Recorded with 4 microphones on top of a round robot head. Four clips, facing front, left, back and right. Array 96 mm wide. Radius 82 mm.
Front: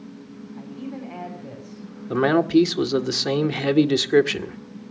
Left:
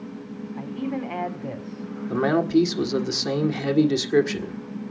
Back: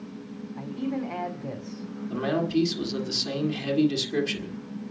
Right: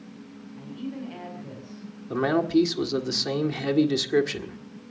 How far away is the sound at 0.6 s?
About 5 m.